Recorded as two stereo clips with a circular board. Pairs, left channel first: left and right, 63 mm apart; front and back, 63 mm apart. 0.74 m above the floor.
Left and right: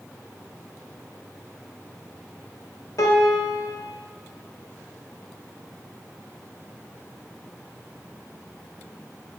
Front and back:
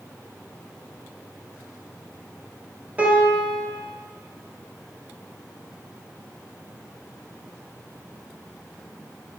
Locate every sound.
3.0 s a piano: 110° left, 1.5 m